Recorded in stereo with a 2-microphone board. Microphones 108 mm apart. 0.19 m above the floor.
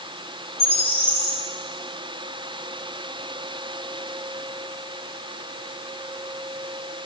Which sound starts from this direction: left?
A bird, at 0.6 s.